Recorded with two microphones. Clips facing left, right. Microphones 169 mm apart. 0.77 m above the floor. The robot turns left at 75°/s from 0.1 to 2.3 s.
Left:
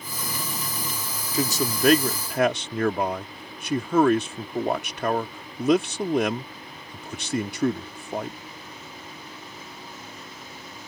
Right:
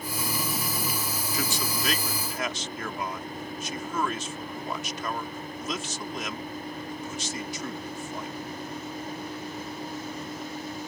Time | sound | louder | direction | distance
1.3 | a man speaking | left 8 dB | 30° left (ahead or behind) | ?